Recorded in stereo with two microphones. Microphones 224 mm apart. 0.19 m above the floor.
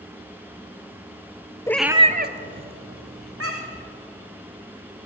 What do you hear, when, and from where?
1.7 s a cat meowing: 15° left (ahead or behind), 0.6 m; by 3.9 s 85° right, 2 m